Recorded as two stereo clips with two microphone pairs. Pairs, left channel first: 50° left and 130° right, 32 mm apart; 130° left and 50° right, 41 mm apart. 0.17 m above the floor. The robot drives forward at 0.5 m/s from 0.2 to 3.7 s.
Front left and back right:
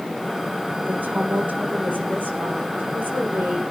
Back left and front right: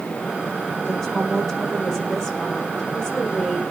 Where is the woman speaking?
145° right, 7.5 m; by 3.6 s 150° right, 9 m.